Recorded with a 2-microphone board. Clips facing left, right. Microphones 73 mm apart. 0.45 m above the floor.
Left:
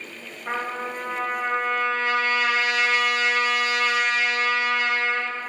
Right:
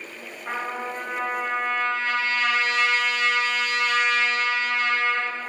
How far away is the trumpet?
About 1.2 m.